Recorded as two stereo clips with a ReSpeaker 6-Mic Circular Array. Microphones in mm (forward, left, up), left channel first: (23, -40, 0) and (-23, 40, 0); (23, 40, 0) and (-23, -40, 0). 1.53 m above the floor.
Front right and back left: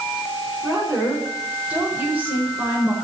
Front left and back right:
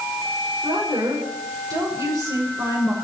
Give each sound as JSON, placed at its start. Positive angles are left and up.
{"t": 0.6, "sound": "a woman speaking", "azimuth_deg": -160, "distance_m": 6.0}